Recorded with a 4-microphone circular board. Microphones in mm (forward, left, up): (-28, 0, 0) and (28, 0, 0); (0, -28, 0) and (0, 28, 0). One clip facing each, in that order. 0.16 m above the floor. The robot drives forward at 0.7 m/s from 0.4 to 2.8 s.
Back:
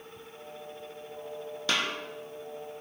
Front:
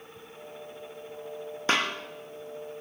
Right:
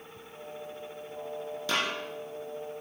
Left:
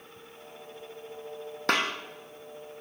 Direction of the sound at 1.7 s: 60° left.